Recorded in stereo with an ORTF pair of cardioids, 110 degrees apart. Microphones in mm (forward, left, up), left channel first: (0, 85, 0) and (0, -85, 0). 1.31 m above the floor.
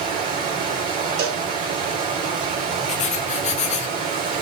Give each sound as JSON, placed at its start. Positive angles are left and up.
{"t": 0.0, "sound": "running water", "azimuth_deg": -55, "distance_m": 1.9}
{"t": 1.2, "sound": "a cowbell", "azimuth_deg": -65, "distance_m": 1.0}
{"t": 2.9, "sound": "writing", "azimuth_deg": 45, "distance_m": 0.7}